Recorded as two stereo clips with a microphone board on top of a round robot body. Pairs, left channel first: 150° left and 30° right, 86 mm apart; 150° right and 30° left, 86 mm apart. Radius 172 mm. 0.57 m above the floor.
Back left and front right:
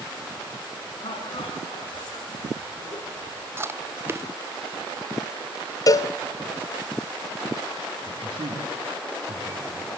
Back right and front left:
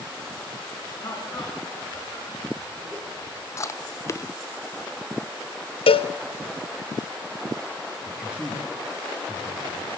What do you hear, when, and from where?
1.0 s laughter: 160° left, 8 m; by 3.4 s 150° left, 11 m
3.6 s chewing: 95° right, 1.0 m
5.9 s a cowbell: 160° right, 0.9 m
8.1 s a man speaking: 70° right, 7 m